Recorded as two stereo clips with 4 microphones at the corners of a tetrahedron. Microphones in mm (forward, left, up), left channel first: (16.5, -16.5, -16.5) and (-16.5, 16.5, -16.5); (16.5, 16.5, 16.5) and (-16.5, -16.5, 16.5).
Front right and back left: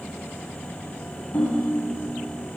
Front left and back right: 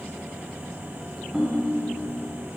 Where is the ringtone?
60° right, 1.1 m.